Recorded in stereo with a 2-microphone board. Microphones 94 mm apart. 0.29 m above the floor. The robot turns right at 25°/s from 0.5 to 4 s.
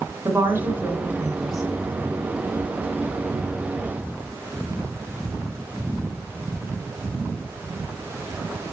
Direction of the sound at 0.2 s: 30° right (ahead or behind).